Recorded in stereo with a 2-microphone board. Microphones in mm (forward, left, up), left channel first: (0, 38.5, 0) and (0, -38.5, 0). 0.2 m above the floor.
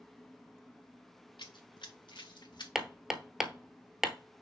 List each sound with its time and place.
1.4 s running footsteps: 80° left, 0.9 m
2.8 s hammering: 5° right (ahead or behind), 0.9 m